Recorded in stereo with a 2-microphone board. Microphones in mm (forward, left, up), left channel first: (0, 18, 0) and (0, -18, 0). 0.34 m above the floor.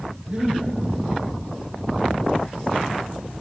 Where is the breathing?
25° right (ahead or behind), 3.5 m.